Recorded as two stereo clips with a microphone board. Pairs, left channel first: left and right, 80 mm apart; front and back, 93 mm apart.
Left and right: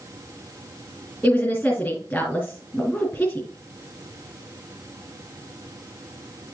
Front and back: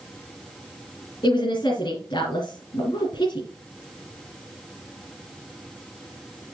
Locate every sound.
1.2 s a woman speaking: 30° left, 3 m